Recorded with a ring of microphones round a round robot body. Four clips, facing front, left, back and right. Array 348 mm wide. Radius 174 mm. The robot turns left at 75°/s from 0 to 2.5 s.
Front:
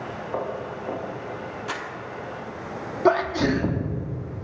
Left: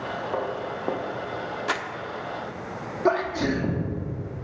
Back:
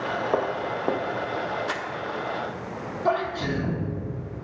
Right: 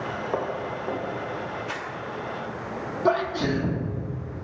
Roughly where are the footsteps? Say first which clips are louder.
Right 1 dB, back 2 dB; behind.